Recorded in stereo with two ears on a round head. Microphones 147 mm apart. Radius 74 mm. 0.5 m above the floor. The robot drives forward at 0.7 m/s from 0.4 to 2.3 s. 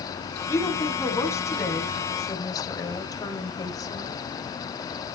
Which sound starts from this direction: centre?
A woman speaking, at 0.5 s.